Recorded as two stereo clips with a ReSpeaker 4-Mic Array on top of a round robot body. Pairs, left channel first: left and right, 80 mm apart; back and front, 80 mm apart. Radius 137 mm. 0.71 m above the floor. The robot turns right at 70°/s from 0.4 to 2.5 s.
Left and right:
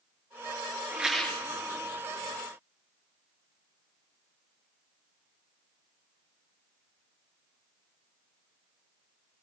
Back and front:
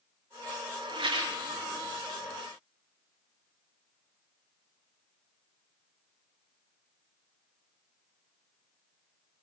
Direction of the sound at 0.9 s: 15° right.